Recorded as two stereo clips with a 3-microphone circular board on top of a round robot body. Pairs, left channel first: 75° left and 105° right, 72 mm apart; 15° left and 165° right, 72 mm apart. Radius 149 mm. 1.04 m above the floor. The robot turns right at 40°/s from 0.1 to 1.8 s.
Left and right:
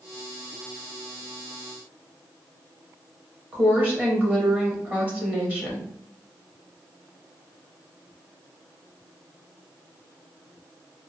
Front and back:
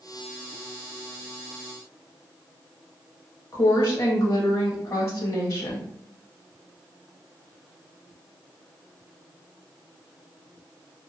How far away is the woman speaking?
About 1.0 m.